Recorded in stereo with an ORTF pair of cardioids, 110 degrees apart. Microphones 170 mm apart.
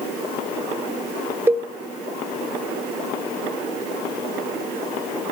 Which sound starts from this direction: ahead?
A cowbell, at 1.5 s.